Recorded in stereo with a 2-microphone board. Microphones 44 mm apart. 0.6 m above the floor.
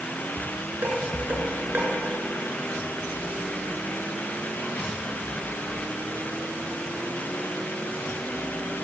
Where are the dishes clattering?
40° right (ahead or behind), 6 m.